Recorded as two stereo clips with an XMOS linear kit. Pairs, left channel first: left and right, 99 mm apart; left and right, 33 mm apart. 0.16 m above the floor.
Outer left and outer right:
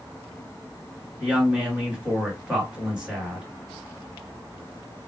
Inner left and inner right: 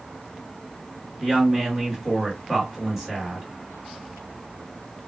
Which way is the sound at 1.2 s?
10° right (ahead or behind).